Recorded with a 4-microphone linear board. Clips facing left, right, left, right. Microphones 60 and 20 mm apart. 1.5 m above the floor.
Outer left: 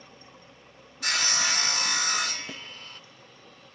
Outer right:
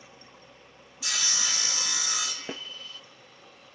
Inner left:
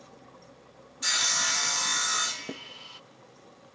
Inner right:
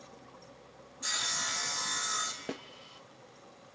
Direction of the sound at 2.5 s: 35° right (ahead or behind).